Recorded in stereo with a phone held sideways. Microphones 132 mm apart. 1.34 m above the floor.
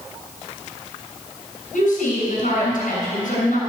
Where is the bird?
No bird in this recording.